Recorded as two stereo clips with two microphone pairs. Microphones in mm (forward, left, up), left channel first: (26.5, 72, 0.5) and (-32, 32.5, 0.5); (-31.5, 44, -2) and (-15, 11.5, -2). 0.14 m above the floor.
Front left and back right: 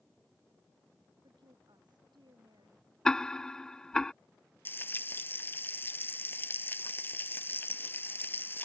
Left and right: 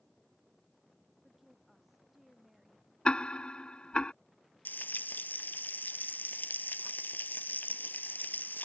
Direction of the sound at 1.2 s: 150° right.